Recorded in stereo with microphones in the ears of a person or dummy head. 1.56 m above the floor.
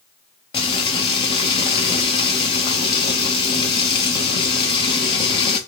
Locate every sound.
0.5 s frying: 25° left (ahead or behind), 0.6 m